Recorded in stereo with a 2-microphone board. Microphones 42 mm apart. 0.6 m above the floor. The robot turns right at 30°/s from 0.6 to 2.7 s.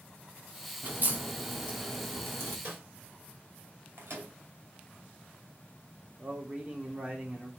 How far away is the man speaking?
About 1.7 m.